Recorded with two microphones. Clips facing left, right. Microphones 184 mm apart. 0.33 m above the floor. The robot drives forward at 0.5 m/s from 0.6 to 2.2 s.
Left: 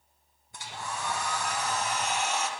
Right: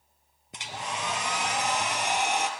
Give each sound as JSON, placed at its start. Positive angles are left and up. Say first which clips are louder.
{"t": 0.5, "sound": "a hair dryer", "louder": "right 2 dB", "side_deg": -75, "distance_m": 1.1}